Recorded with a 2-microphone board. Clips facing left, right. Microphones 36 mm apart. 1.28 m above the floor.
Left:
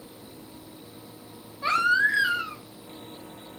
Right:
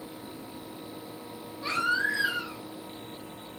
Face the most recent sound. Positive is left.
turn(degrees=60)  # may be behind; listen again after turning